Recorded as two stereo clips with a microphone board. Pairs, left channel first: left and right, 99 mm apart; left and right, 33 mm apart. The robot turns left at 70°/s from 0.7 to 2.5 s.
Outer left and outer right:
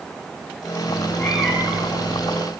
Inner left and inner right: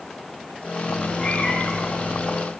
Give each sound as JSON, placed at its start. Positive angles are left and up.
{"t": 0.9, "sound": "a cat meowing", "azimuth_deg": 40, "distance_m": 4.5}